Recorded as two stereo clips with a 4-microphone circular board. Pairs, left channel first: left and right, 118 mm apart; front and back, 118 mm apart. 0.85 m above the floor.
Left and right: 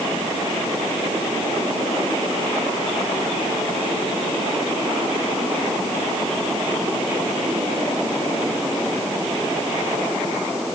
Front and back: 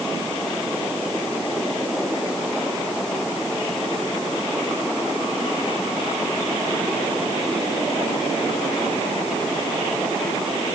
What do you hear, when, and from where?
Only background noise.